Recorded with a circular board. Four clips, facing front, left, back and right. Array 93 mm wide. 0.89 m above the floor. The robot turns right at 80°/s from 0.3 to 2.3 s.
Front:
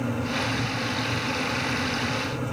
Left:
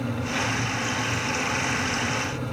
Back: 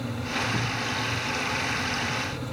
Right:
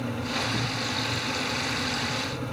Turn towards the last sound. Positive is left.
turn(degrees=-15)